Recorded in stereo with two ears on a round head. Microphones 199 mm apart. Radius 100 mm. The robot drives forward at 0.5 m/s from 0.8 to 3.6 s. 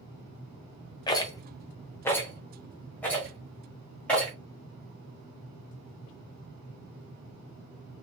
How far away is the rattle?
About 0.5 m.